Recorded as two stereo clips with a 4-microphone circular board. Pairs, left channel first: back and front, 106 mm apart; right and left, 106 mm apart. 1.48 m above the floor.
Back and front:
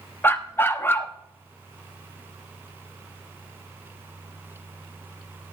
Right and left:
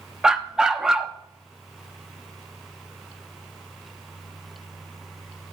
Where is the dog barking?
165° left, 0.9 m.